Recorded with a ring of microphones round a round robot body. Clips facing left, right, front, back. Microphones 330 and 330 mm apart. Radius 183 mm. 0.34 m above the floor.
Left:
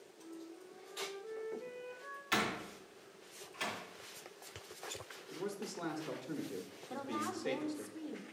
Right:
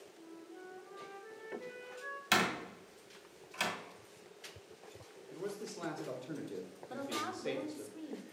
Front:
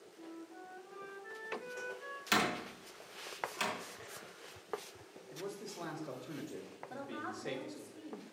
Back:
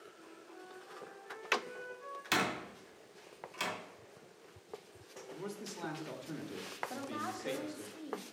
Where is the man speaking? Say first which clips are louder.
Even, even; 160° left, 1.6 m.